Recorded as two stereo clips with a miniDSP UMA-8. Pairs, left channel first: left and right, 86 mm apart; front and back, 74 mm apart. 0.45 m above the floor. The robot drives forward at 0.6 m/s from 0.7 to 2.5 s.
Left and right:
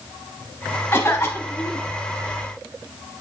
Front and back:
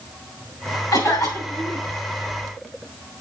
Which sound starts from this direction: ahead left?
A cough, at 0.9 s.